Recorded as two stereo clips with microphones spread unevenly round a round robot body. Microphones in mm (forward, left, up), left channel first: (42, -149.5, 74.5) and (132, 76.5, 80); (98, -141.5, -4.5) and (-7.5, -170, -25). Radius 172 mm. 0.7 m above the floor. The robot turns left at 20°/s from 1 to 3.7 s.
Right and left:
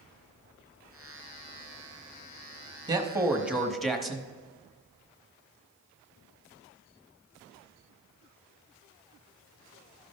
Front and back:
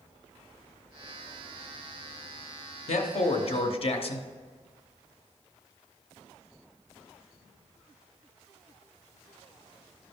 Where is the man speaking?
5° right, 1.2 m; by 4.3 s 20° right, 1.2 m.